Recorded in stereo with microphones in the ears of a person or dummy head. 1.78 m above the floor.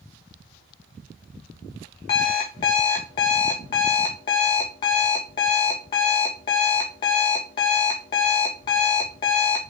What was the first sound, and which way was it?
An alarm clock, 25° left (ahead or behind).